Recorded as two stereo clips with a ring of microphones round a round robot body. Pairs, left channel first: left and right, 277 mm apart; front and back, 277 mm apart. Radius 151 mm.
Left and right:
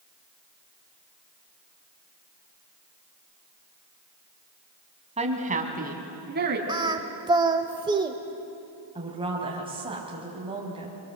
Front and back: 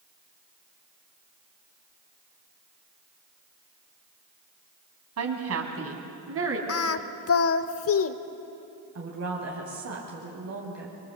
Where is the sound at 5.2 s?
155° right, 3 m; by 6.6 s 140° right, 3.5 m.